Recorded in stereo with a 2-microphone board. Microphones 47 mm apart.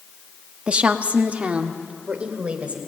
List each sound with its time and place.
0.7 s a woman speaking: 25° right (ahead or behind), 0.9 m; by 2.8 s 30° right (ahead or behind), 3 m